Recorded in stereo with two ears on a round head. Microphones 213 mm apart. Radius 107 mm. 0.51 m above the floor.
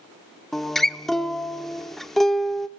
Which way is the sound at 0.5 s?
Centre (ahead or behind).